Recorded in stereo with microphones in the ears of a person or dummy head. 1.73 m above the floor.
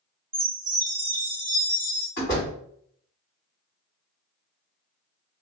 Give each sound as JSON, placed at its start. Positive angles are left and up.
{"t": 0.3, "sound": "a chime", "side_deg": -10, "distance_m": 1.6}
{"t": 2.2, "sound": "a door slam", "side_deg": 40, "distance_m": 1.8}